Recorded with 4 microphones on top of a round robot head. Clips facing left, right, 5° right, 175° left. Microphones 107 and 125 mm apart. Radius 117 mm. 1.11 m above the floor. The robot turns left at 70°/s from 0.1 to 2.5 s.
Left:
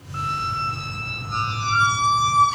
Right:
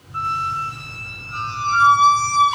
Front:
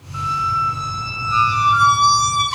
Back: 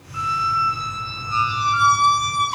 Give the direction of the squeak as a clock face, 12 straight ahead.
7 o'clock.